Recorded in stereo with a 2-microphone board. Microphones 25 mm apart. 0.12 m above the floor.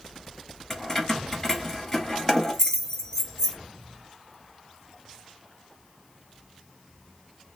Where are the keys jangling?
15° left (ahead or behind), 1.0 m.